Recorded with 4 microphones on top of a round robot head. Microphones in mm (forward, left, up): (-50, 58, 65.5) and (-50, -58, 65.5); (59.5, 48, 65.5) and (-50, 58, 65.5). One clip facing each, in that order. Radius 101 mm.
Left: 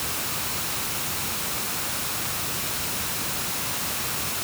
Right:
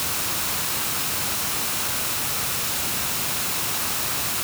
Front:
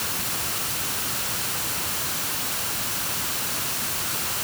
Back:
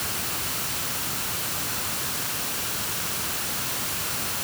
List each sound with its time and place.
Only background noise.